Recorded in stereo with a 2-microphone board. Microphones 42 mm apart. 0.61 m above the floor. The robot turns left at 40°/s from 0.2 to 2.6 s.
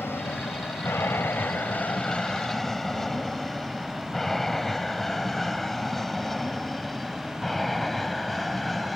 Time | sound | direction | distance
0.0 | an aircraft | 60° left (ahead or behind) | ?